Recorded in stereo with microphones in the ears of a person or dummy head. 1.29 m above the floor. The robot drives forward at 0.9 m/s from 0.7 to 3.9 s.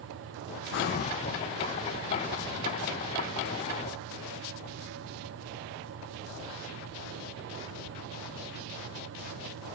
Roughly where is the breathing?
Left.